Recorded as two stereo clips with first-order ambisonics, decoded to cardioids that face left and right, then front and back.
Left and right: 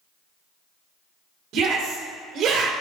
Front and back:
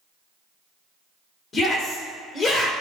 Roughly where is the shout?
Ahead right.